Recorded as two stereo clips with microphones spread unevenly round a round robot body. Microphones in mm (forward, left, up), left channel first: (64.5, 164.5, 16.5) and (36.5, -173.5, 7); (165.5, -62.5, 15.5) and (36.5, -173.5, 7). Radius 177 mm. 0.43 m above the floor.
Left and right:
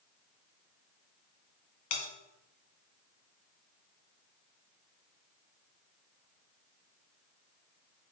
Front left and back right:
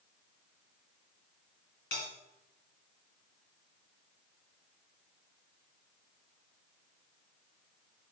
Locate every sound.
1.9 s a bell: 80° left, 1.9 m